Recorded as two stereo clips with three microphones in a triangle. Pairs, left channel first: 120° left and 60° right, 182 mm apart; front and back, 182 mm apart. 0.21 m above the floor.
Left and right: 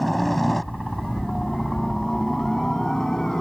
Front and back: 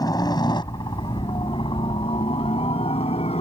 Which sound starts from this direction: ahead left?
A helicopter, at 0.0 s.